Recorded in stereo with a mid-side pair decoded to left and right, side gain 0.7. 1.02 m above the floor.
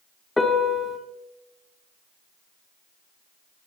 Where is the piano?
10° left, 1.8 m.